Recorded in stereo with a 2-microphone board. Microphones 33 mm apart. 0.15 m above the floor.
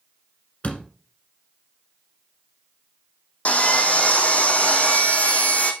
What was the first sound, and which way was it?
A door slam, 45° left (ahead or behind).